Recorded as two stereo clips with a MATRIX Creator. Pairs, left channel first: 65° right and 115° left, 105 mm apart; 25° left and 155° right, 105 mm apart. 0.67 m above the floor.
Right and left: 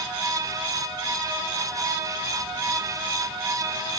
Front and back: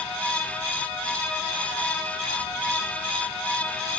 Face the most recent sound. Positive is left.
No sound to turn to.